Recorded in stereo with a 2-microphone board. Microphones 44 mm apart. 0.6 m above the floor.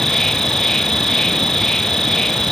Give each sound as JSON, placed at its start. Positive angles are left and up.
{"t": 0.0, "sound": "an insect", "side_deg": 10}